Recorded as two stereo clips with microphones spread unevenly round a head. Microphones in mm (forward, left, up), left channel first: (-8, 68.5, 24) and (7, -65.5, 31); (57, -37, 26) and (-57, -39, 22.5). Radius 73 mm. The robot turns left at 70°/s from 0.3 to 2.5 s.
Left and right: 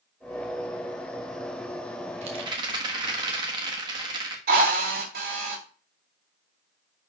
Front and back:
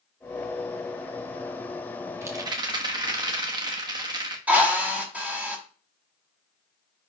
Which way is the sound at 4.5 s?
100° right.